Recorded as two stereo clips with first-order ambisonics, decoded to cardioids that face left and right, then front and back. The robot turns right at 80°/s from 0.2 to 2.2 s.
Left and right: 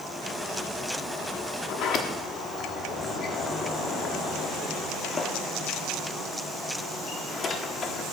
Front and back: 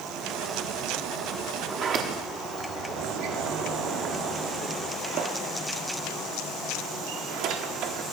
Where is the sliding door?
110° left, 1.1 m; by 8.0 s 155° left, 1.1 m.